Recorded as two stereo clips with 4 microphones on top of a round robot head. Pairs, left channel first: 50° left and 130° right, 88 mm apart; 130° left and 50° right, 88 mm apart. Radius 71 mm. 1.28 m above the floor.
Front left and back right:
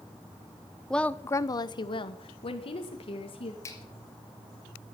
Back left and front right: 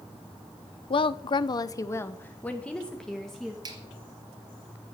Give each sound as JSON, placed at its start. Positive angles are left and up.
{"t": 0.9, "sound": "a woman speaking", "azimuth_deg": 135, "distance_m": 0.9}
{"t": 3.6, "sound": "a finger snap", "azimuth_deg": -10, "distance_m": 2.5}